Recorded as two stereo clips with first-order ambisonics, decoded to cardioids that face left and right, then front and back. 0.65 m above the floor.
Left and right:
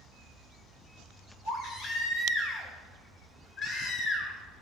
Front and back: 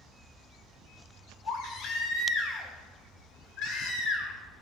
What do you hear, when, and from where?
1.4 s a baby crying: 35° left, 1.9 m